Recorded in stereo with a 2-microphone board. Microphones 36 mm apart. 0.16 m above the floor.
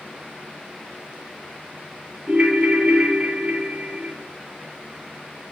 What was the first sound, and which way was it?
A ringtone, 35° right (ahead or behind).